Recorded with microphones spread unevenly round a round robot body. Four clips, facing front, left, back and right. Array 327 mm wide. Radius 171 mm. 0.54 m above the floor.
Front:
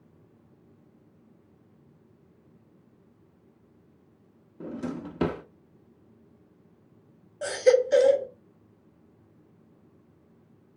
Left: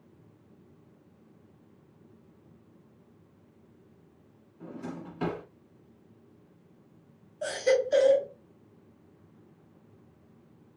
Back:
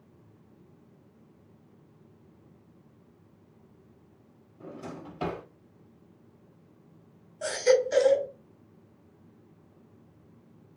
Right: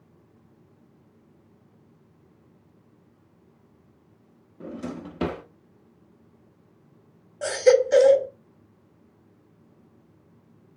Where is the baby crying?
55° right, 0.9 m.